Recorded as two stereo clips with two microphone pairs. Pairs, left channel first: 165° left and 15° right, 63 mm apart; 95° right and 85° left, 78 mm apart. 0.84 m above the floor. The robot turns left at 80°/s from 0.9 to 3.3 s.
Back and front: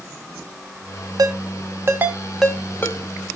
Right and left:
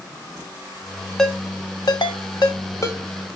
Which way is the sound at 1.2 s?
10° right.